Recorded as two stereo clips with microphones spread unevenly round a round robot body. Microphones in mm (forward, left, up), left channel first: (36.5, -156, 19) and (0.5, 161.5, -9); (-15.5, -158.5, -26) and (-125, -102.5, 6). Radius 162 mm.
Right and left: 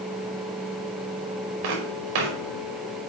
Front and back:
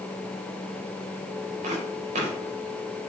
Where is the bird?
I don't hear a bird.